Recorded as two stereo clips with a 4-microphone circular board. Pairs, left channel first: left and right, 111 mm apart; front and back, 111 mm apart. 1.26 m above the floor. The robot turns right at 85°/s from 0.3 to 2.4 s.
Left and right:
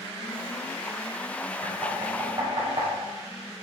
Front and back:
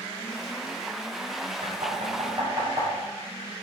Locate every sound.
1.6 s knocking: 160° left, 6.5 m; by 2.9 s 135° right, 6.5 m